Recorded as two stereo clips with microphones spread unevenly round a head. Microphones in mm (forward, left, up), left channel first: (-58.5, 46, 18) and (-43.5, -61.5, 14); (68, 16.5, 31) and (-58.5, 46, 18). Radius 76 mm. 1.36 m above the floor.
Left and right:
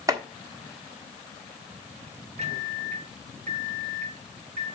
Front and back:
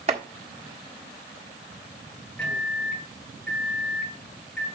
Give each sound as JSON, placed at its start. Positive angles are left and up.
{"t": 0.1, "sound": "chopping", "azimuth_deg": -140, "distance_m": 1.5}
{"t": 2.4, "sound": "a microwave", "azimuth_deg": -95, "distance_m": 1.5}